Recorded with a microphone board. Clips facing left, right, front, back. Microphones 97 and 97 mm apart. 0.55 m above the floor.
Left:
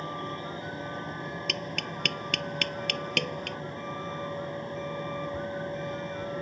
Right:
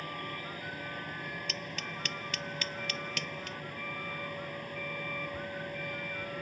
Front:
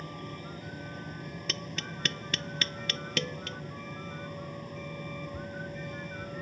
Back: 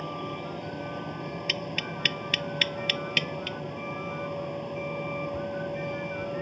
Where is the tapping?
65° left.